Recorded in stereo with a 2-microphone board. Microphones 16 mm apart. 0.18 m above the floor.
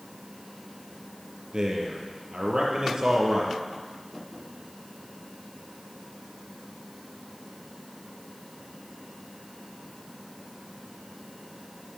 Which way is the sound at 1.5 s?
50° right (ahead or behind).